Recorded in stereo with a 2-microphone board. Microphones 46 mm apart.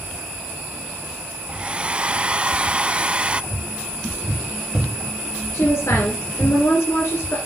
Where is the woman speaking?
70° left (ahead or behind), 3 m.